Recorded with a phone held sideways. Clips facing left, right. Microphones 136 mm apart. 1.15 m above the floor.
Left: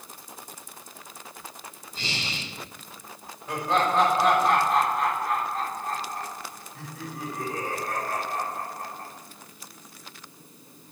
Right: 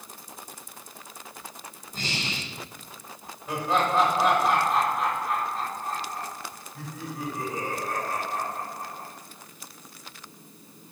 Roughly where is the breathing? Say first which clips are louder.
Right 2 dB; right.